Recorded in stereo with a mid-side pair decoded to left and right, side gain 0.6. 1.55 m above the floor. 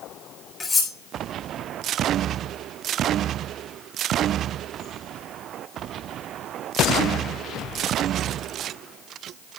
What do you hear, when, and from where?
0.6 s cutlery clinking: 20° left, 5 m